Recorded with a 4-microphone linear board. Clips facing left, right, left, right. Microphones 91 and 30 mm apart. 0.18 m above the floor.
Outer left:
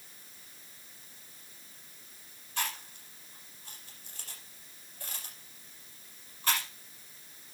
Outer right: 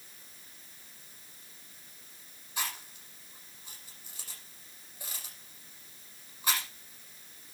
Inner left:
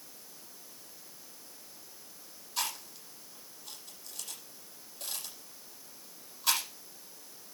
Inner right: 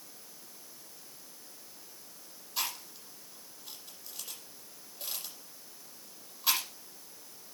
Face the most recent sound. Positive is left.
turn(degrees=-10)  # may be behind; listen again after turning